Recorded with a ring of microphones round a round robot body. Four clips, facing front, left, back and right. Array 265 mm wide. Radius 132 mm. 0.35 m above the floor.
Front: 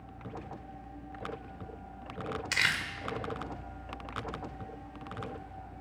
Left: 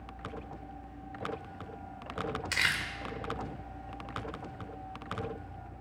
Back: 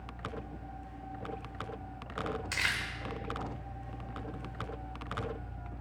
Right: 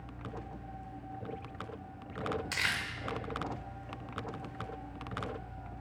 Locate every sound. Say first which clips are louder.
2.5 s crumpling: left 3 dB, front 3 dB; 30° left, 0.8 m